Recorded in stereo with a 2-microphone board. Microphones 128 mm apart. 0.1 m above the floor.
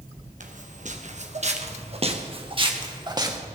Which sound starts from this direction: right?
Footsteps, at 0.4 s.